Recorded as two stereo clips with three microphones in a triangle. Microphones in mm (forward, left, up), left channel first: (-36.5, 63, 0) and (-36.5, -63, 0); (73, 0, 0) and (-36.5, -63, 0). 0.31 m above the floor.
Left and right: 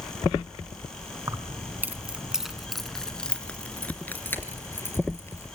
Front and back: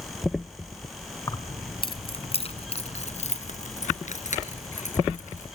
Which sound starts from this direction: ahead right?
Keys jangling, at 1.3 s.